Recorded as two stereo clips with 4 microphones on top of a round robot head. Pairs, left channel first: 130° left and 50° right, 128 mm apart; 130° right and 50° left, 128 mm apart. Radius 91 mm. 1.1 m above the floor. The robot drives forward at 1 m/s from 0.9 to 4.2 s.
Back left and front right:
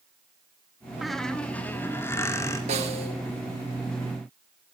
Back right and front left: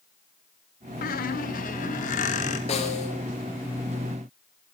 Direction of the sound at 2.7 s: 90° right.